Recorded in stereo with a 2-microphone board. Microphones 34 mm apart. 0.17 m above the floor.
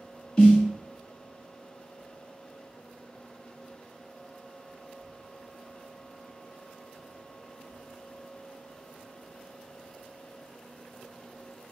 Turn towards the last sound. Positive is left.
turn(degrees=20)  # may be behind; listen again after turning